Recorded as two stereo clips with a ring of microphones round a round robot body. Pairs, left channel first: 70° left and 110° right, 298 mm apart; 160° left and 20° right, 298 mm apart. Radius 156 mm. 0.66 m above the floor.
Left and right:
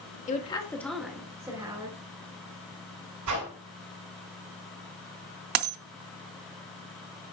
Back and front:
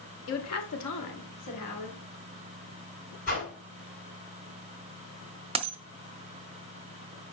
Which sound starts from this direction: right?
A dropped coin, at 5.5 s.